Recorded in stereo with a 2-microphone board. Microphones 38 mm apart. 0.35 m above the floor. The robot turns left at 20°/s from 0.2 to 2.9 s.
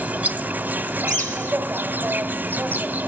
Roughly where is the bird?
Left.